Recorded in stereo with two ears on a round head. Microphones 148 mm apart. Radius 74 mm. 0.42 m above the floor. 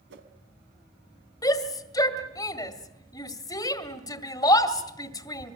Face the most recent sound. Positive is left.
turn(degrees=20)  # may be behind; listen again after turning